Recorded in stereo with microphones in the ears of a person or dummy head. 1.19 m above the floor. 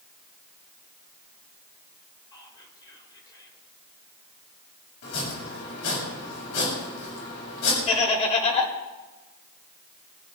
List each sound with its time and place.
2.3 s whispering: 20° left (ahead or behind), 4.5 m
5.0 s chopping: 65° left (ahead or behind), 7.5 m
7.9 s laughter: 35° left (ahead or behind), 4.5 m